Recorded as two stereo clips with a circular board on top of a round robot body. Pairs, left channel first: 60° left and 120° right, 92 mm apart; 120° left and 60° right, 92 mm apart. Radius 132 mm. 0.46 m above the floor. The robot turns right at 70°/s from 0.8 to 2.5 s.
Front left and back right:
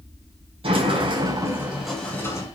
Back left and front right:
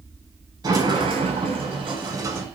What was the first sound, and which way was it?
A sliding door, 105° right.